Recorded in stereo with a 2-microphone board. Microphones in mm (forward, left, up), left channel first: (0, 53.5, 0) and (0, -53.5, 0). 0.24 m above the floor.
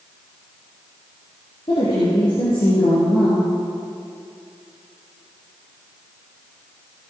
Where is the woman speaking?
55° left (ahead or behind), 4 m.